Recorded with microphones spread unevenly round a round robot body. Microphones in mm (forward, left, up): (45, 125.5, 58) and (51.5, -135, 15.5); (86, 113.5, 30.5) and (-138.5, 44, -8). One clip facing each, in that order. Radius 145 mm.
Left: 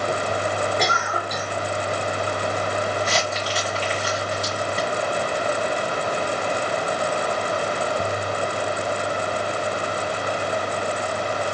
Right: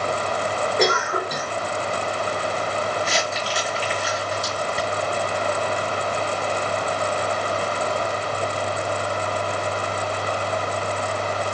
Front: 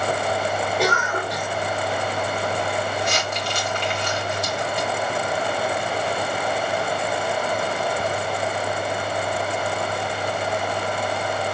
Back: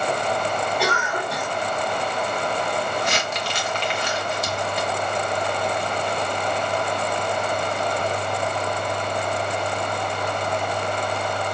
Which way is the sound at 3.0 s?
175° right.